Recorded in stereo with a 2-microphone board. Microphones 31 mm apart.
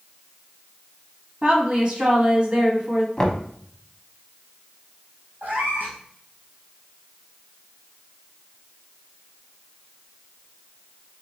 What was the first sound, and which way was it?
A woman speaking, 35° right (ahead or behind).